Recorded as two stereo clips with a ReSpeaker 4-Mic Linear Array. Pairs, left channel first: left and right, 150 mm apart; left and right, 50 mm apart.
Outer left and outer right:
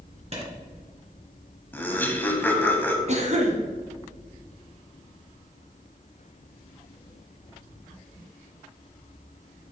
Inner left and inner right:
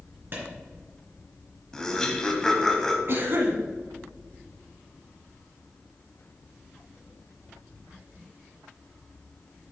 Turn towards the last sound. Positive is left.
turn(degrees=-50)  # may be behind; listen again after turning